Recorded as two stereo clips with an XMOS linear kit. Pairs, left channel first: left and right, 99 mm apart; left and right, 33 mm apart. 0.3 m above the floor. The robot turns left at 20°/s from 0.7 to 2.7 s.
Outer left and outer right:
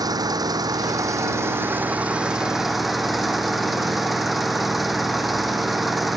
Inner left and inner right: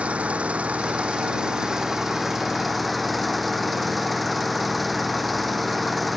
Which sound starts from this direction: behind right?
An engine running, at 0.0 s.